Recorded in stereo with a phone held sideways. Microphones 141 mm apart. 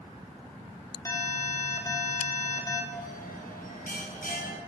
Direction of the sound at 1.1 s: 20° left (ahead or behind).